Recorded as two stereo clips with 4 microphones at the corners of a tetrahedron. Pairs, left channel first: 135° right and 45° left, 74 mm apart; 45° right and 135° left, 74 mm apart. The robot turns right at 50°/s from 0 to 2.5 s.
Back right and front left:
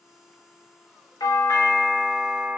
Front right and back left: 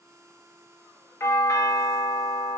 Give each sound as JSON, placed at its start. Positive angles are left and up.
{"t": 1.2, "sound": "a doorbell", "azimuth_deg": -100, "distance_m": 0.7}